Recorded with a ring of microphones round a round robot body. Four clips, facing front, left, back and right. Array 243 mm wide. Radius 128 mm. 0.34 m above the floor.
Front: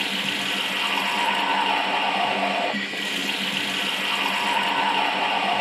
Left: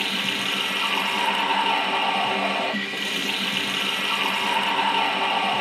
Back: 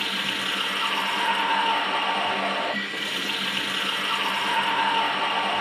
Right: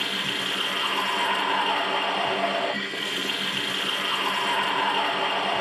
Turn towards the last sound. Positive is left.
turn(degrees=50)